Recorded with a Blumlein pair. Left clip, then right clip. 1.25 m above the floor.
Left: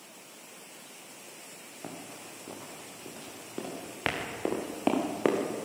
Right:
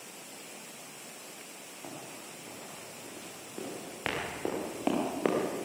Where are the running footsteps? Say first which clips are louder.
Left 2 dB; 20° left, 7 m; by 5.7 s 10° left, 4 m.